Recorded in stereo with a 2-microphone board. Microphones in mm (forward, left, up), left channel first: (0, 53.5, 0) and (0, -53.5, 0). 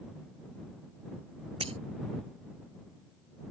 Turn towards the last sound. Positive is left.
turn(degrees=-65)  # may be behind; listen again after turning